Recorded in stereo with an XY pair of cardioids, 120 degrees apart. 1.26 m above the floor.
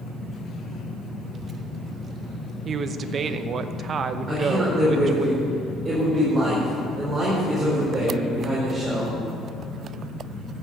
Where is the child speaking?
40° right, 1.5 m.